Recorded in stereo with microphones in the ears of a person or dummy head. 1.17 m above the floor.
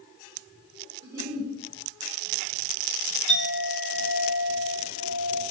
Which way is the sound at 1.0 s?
15° right (ahead or behind).